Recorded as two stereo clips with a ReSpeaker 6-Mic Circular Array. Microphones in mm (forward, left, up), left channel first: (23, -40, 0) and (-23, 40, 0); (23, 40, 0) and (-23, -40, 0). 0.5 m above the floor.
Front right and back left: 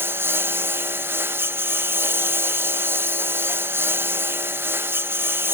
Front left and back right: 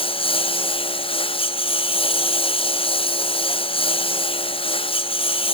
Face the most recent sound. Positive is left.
turn(degrees=55)